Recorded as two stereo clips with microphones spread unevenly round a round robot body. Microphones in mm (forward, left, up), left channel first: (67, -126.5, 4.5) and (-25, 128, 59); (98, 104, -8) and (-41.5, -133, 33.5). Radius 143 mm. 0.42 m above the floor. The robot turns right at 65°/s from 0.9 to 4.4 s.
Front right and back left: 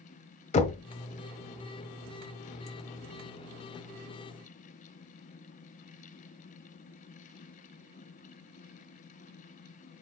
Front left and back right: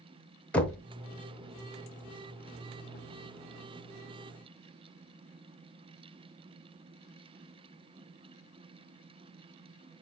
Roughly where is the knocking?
Ahead.